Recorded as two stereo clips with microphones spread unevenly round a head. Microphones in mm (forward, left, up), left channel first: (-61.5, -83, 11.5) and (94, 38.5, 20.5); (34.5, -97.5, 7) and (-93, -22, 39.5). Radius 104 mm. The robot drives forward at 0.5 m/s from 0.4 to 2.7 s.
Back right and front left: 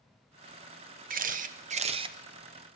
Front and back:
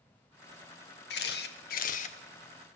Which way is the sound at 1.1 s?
Straight ahead.